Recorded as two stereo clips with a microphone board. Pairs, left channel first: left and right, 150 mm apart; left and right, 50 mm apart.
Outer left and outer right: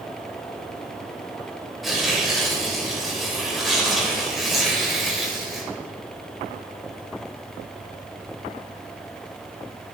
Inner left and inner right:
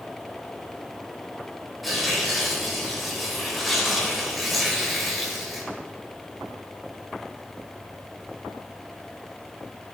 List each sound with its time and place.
1.8 s tearing paper: centre (ahead or behind), 2 m